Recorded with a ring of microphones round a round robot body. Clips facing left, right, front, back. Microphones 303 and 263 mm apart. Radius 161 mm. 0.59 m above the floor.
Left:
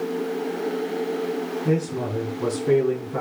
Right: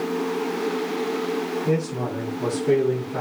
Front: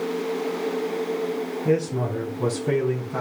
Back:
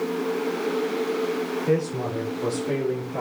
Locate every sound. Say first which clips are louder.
1.6 s a man speaking: left 3 dB, front 3 dB; 25° left, 3.5 m; by 3.2 s 10° left, 5 m